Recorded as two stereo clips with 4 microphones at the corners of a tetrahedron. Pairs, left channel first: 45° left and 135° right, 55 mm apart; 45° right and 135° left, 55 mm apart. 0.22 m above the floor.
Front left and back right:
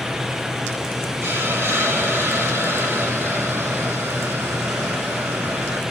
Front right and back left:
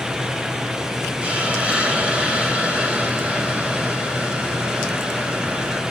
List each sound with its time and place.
1.2 s a hiss: 160° right, 1.8 m